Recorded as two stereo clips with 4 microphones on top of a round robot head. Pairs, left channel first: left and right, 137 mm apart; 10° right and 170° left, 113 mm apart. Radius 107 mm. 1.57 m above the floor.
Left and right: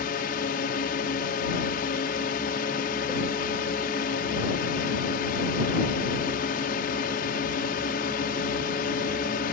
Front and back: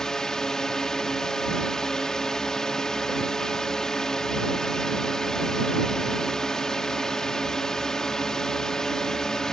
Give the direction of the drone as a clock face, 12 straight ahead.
10 o'clock.